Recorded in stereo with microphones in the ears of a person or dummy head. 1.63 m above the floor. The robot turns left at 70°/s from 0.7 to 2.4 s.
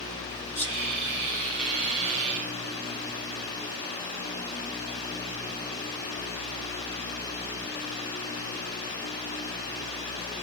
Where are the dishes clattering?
I don't hear dishes clattering.